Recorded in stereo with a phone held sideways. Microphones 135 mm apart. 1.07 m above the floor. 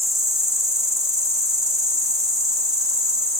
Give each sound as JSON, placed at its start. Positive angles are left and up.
{"t": 0.0, "sound": "an insect", "side_deg": -25, "distance_m": 1.2}